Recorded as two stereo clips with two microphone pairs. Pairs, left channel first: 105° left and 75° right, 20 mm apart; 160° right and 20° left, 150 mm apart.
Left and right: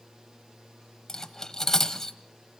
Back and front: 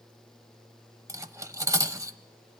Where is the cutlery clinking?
75° left, 0.7 m.